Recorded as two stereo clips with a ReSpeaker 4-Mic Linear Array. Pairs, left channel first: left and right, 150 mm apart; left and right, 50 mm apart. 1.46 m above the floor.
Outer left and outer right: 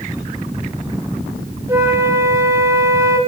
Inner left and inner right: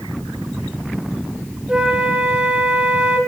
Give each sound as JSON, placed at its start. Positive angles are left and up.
{"t": 1.7, "sound": "a flute", "side_deg": -20, "distance_m": 1.2}